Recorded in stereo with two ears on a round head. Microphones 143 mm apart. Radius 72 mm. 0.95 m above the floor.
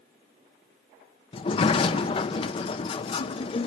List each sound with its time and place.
1.3 s a sliding door: 35° left (ahead or behind), 0.5 m